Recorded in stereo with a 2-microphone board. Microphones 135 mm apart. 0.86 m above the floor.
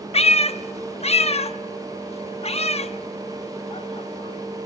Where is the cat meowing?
50° left (ahead or behind), 0.7 m.